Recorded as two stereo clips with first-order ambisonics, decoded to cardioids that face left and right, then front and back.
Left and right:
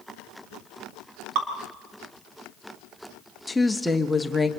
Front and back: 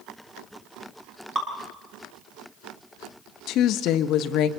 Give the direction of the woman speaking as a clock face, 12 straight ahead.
12 o'clock.